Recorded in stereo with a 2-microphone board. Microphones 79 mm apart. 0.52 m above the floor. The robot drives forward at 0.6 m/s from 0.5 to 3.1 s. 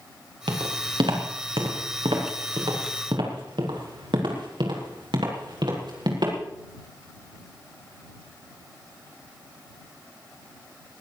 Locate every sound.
0.5 s footsteps: 80° right, 4.5 m; by 6.3 s 65° right (ahead or behind), 6 m